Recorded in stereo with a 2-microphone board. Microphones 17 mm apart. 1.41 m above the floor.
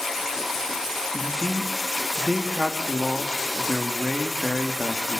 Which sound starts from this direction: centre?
A man speaking, at 1.1 s.